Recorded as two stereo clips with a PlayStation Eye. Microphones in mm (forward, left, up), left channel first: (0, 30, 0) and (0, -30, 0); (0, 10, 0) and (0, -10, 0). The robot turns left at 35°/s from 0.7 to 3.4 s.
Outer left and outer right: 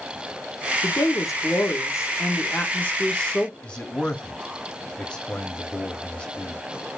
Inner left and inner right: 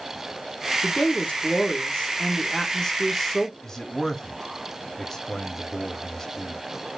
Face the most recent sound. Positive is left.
turn(degrees=20)  # may be behind; listen again after turning